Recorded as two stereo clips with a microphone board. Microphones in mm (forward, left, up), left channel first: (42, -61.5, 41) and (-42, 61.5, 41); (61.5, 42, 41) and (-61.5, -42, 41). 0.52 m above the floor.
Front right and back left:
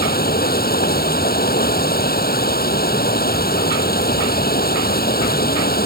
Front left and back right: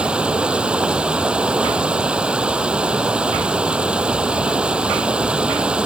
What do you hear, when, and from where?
0.0 s running water: 60° right